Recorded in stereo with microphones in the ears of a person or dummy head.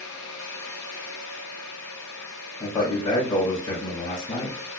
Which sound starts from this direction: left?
A man speaking, at 2.6 s.